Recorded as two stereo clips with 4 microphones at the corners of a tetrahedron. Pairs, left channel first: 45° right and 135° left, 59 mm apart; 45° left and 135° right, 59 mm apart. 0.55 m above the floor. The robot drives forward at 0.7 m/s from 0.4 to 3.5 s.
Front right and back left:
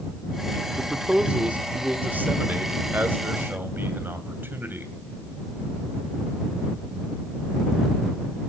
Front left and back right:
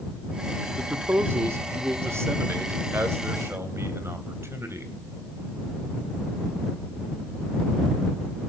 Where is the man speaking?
150° right, 0.8 m; by 4.9 s 175° right, 2.5 m.